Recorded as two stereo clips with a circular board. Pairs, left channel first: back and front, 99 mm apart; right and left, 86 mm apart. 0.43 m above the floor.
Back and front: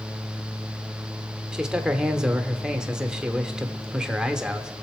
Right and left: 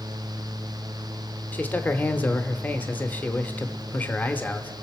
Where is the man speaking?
65° right, 0.8 m.